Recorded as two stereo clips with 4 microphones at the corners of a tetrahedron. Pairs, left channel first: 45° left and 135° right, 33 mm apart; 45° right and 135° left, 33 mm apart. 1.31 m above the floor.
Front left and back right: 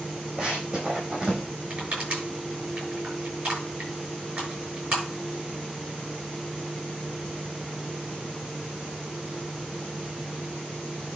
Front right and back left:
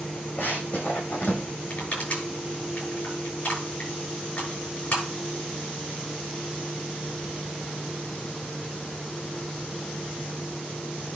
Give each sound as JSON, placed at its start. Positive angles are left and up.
{"t": 0.4, "sound": "running footsteps", "azimuth_deg": -85, "distance_m": 4.5}
{"t": 1.7, "sound": "crushing", "azimuth_deg": -100, "distance_m": 7.0}